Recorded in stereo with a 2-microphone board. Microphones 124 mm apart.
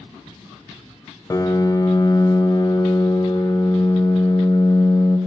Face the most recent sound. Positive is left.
turn(degrees=25)  # may be behind; listen again after turning